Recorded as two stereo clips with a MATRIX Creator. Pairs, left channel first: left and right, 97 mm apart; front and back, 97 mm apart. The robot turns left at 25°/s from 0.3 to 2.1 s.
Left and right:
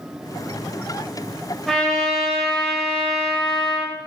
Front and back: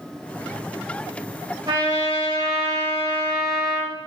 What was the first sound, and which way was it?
A trumpet, 175° left.